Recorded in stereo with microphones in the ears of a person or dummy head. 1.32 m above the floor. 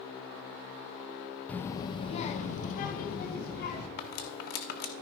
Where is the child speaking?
5° left (ahead or behind), 0.7 m; by 3.9 s 55° left (ahead or behind), 2.0 m.